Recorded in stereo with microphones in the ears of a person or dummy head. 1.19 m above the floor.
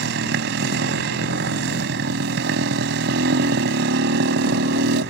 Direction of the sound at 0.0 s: 75° right (ahead or behind).